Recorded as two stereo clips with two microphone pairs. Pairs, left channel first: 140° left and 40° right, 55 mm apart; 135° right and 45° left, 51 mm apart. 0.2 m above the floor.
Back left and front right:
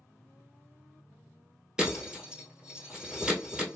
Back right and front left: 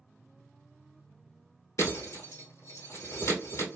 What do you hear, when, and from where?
1.8 s breaking glass: 115° right, 1.6 m